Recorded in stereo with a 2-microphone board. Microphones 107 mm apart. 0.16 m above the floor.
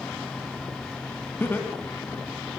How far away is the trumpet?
I don't hear a trumpet.